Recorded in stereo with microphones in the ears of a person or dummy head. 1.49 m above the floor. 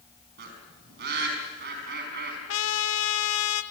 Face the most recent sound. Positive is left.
turn(degrees=80)